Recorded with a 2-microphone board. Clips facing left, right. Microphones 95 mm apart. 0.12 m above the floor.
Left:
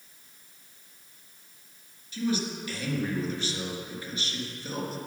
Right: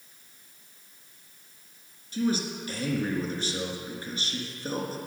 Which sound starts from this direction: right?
A man speaking, at 2.1 s.